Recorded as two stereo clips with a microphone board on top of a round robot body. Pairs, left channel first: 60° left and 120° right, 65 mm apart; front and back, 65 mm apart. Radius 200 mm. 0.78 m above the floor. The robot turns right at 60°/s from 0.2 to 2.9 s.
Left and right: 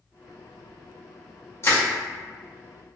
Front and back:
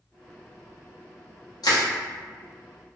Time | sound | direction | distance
1.6 | crushing | 10° left | 0.9 m